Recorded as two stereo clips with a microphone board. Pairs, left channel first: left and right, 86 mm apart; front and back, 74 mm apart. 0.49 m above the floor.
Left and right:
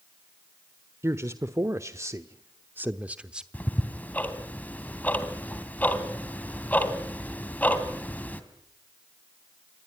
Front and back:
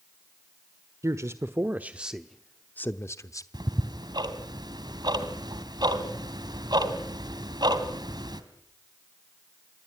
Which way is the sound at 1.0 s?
145° right.